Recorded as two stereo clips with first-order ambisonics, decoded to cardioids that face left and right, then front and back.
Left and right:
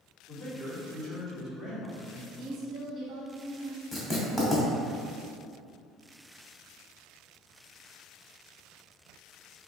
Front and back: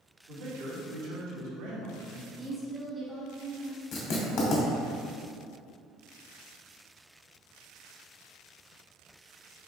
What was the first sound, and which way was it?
A man speaking, 145° right.